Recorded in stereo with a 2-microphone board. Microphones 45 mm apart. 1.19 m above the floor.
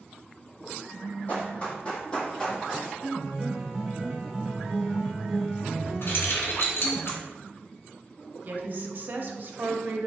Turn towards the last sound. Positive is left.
turn(degrees=-45)  # may be behind; listen again after turning